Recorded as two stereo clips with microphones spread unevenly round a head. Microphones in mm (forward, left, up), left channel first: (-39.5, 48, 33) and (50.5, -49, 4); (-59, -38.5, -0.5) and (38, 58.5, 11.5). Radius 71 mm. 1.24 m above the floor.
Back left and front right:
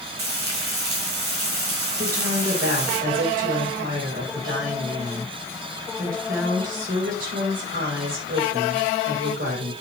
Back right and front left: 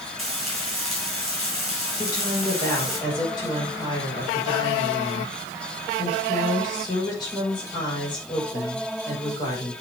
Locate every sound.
0.2 s frying: 45° right, 4.5 m
2.0 s a woman speaking: 75° right, 5 m